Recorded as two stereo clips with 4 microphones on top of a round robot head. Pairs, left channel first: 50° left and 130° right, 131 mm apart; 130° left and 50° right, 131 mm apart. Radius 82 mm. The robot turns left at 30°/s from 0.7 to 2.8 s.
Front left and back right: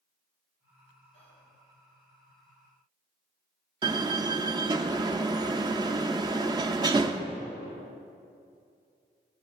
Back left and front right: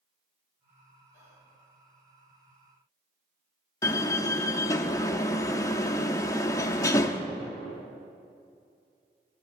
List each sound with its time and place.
1.1 s whispering: 15° left, 2.5 m; by 1.5 s 5° left, 2.5 m
3.8 s a door slam: 175° right, 0.6 m